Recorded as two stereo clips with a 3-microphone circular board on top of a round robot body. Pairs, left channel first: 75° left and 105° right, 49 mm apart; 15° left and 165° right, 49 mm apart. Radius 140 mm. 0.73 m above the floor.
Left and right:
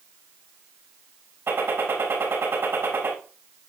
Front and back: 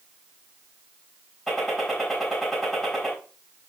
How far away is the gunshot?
About 5 m.